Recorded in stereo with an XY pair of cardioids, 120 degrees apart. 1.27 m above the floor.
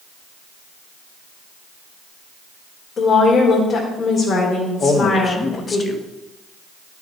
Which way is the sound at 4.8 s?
30° left.